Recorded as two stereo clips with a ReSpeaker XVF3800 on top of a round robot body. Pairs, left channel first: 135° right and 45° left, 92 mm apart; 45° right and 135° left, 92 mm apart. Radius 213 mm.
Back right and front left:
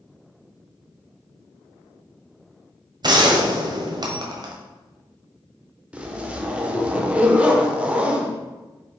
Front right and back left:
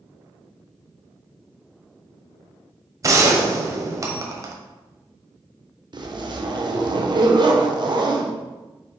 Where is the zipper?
120° left, 1.3 m.